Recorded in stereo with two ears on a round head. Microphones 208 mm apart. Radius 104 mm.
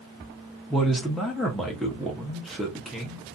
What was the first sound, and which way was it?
A man speaking, centre (ahead or behind).